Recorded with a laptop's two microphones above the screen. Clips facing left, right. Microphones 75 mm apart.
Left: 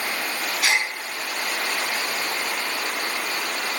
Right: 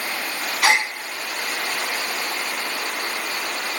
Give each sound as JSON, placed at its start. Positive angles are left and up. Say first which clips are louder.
{"t": 0.6, "sound": "a gasp", "louder": "right 5 dB", "side_deg": -75, "distance_m": 0.7}